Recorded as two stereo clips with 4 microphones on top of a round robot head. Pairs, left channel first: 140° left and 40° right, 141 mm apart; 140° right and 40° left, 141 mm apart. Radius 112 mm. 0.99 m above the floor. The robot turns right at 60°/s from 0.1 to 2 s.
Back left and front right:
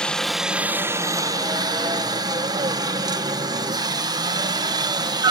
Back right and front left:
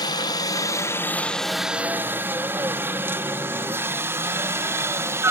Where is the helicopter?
140° right; by 5.3 s 15° right.